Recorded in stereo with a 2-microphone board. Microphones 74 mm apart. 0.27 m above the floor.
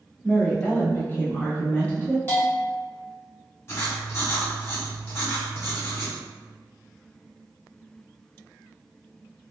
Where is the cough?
No cough in this recording.